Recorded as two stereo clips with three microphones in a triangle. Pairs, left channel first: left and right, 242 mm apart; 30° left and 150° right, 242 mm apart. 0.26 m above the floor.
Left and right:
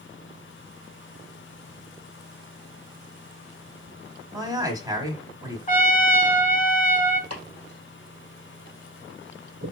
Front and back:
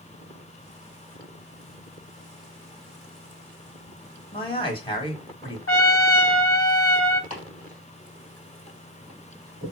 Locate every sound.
4.3 s a man speaking: 25° right, 1.3 m
5.7 s a trumpet: 40° left, 0.6 m
7.3 s chopping: 95° right, 3 m